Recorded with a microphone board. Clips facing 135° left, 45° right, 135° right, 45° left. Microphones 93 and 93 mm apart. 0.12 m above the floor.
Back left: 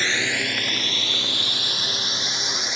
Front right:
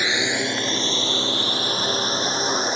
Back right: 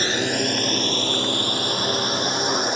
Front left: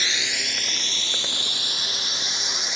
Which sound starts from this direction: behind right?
A drone, at 0.0 s.